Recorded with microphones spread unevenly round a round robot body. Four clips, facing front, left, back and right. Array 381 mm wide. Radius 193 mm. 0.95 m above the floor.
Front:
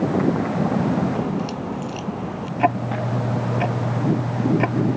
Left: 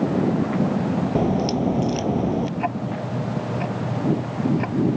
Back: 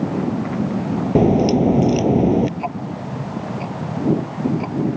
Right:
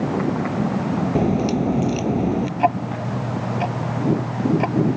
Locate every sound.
1.1 s a crack: 175° right
2.6 s ticking: 10° right